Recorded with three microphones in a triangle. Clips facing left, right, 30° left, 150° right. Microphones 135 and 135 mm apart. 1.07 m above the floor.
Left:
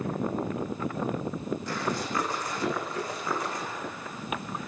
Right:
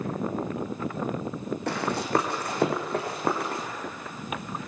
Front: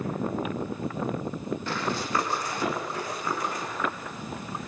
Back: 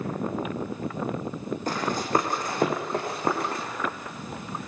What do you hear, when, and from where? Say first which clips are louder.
1.7 s running footsteps: right 8 dB, back 6 dB; 105° right, 4 m; by 3.6 s 120° right, 6 m